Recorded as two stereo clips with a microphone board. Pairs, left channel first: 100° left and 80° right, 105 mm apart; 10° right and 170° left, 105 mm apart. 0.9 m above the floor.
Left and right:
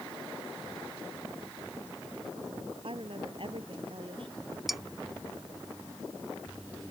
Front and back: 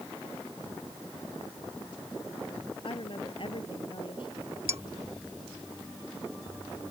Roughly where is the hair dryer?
No hair dryer in this recording.